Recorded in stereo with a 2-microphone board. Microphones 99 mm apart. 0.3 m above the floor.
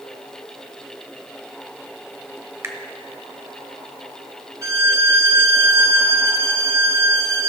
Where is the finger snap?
30° right (ahead or behind), 1.2 m.